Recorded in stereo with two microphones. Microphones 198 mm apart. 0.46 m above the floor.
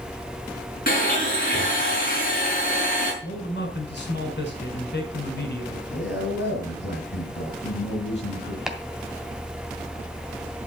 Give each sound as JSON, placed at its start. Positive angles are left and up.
{"t": 0.9, "sound": "a blender", "side_deg": 45, "distance_m": 5.5}
{"t": 3.2, "sound": "a man speaking", "side_deg": 65, "distance_m": 2.0}
{"t": 5.9, "sound": "a man speaking", "side_deg": 65, "distance_m": 5.0}
{"t": 8.7, "sound": "chopping", "side_deg": -5, "distance_m": 1.6}